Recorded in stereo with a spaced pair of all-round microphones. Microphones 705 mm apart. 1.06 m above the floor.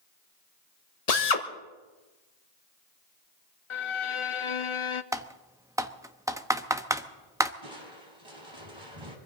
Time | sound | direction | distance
1.1 | a drill | 60° left (ahead or behind) | 1.3 m
3.7 | a violin | 45° left (ahead or behind) | 0.6 m
5.1 | typing on a keyboard | 5° right (ahead or behind) | 0.7 m
7.6 | crushing | 40° right (ahead or behind) | 3 m